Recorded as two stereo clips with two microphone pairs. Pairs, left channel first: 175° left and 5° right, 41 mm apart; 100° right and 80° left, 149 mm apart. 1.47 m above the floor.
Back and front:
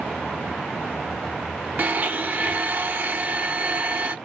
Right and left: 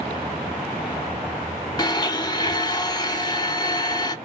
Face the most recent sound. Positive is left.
turn(degrees=-40)